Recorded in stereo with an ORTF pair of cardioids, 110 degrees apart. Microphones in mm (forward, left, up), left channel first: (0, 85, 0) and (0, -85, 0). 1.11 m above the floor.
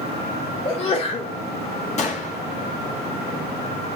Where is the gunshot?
40° left, 2 m.